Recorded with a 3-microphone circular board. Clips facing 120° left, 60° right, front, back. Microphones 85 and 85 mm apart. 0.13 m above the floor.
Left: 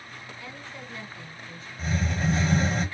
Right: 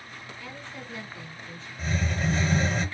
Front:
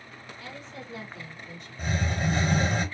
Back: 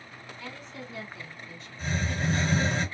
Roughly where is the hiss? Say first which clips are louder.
Left 1 dB, front 1 dB; ahead left.